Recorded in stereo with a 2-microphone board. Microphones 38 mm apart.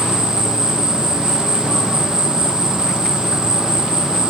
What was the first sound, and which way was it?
An insect, 75° left (ahead or behind).